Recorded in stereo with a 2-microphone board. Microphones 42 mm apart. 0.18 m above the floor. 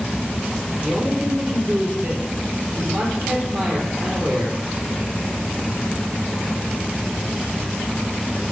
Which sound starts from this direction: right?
A man speaking, at 0.8 s.